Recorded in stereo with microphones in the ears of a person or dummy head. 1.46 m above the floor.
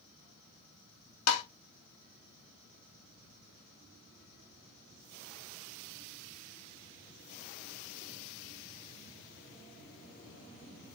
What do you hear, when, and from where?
1.3 s tapping: 75° left (ahead or behind), 1.1 m